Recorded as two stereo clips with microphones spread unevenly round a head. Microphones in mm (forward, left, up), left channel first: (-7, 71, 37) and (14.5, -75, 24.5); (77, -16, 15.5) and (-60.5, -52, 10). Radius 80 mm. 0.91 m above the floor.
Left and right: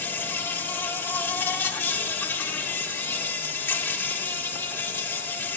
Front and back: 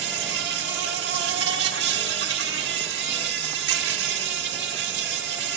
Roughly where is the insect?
Behind.